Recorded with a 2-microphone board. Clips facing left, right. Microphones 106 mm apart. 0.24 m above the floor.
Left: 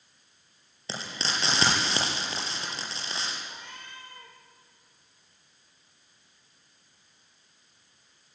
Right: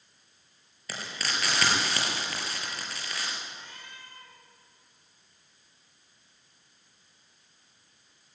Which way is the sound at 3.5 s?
60° left (ahead or behind).